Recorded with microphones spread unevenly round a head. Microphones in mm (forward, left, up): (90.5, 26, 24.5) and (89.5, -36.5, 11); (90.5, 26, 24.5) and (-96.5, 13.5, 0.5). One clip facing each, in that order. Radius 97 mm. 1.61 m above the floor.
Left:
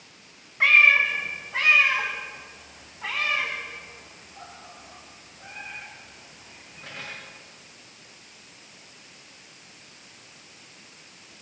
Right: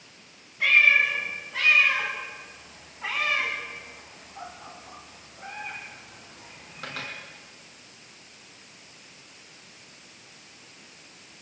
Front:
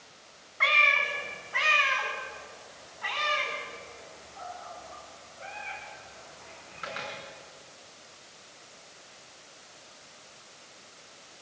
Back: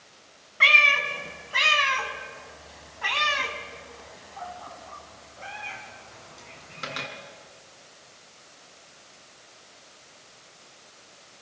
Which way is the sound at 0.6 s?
135° left.